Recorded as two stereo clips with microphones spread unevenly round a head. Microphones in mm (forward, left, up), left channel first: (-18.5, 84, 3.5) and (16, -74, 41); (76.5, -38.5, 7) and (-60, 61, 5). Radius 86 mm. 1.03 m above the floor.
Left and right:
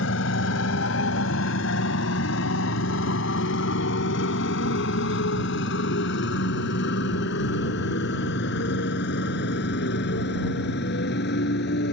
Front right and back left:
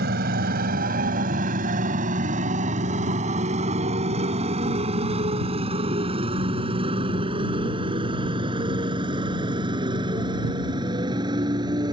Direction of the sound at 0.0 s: 110° left.